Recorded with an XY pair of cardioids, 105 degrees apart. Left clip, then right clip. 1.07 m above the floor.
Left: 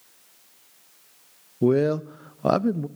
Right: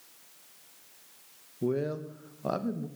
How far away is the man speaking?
About 0.5 m.